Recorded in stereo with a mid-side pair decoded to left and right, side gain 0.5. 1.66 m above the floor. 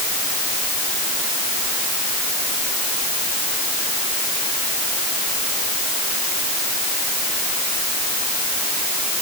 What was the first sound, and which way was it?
Only background noise.